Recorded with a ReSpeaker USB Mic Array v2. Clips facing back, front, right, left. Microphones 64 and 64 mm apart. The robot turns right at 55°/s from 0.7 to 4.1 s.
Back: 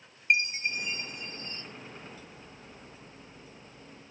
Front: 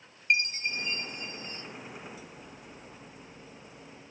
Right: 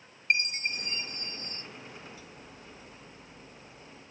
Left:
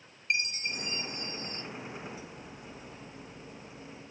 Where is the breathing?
No breathing in this recording.